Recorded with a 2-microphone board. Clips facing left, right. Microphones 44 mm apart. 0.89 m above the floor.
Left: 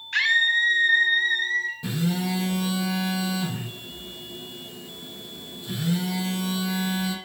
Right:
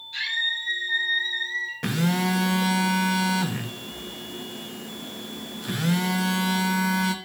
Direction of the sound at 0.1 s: 60° left (ahead or behind).